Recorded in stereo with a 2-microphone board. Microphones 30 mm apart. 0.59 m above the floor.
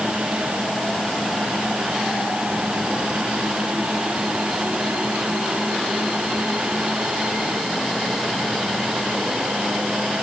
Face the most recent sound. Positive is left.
No sound to turn to.